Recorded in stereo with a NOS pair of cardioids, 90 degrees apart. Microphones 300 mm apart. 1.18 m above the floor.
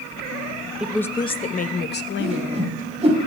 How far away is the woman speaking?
About 0.6 m.